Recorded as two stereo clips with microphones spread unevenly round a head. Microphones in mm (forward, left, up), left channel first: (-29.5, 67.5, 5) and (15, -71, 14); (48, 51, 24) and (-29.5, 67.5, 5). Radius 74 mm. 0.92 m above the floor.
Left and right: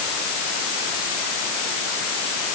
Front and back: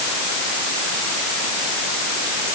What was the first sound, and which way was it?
Only background noise.